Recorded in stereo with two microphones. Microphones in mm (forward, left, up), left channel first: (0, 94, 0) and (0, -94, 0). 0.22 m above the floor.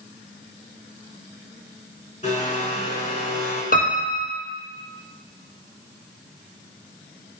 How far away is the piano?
About 1.6 m.